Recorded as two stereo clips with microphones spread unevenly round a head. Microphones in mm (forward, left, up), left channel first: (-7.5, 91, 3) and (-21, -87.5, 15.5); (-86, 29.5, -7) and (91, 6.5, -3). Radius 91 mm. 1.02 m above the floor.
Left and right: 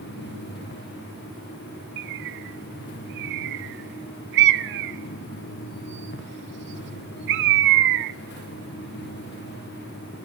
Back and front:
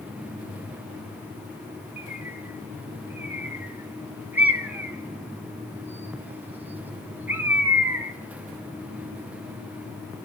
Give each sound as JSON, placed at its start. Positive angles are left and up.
{"t": 2.0, "sound": "a bird", "azimuth_deg": -90, "distance_m": 0.6}